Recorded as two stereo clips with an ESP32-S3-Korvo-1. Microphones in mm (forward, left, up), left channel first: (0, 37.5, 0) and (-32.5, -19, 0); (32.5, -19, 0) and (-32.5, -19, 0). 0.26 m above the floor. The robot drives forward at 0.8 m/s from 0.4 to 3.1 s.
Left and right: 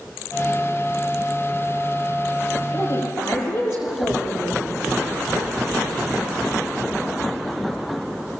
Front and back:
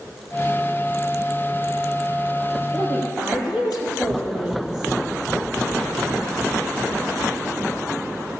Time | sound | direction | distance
2.7 | a woman speaking | 95° left | 6.5 m